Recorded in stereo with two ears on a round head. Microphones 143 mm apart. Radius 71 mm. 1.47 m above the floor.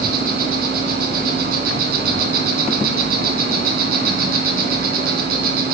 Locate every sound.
0.0 s an insect: 60° right (ahead or behind), 2 m